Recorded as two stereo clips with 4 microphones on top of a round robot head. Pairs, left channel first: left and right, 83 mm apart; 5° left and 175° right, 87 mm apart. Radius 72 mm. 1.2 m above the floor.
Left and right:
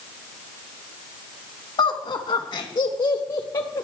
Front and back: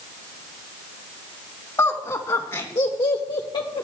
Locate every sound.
1.8 s laughter: 65° left, 2.0 m; by 3.8 s 40° left, 0.9 m